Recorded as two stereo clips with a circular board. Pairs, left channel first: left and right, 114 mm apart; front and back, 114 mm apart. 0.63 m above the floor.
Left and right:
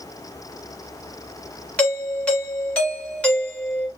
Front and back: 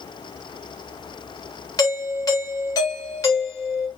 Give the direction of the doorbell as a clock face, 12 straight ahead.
11 o'clock.